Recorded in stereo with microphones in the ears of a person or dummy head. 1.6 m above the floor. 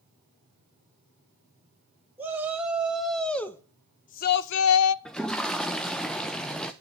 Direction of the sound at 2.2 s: 15° right (ahead or behind).